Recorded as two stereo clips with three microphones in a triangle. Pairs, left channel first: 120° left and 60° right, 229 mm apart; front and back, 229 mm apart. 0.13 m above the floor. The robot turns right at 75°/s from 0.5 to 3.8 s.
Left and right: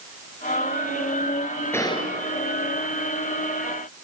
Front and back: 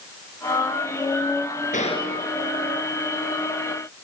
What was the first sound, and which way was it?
A gunshot, 45° left.